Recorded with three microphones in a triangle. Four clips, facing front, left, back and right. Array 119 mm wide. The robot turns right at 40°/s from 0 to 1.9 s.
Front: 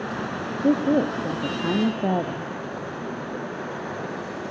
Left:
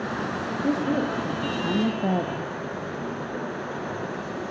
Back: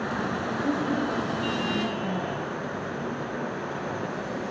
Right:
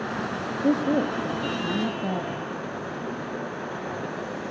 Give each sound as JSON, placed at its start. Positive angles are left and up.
{"t": 0.6, "sound": "a woman speaking", "azimuth_deg": -25, "distance_m": 0.7}